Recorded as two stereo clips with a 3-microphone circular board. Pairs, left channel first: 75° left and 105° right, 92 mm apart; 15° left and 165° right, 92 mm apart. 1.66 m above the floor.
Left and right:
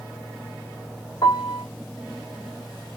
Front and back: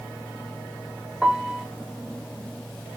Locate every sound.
1.2 s a piano: 110° left, 3.5 m